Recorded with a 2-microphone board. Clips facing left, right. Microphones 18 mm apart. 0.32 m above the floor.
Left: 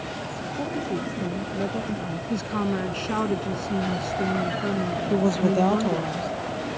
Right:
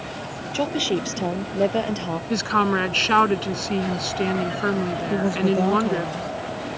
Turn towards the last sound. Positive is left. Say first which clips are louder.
# even
turn(degrees=10)  # may be behind; listen again after turning